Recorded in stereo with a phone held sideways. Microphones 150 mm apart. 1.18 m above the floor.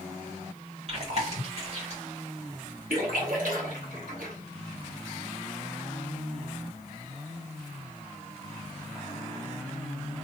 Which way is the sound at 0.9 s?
45° right (ahead or behind).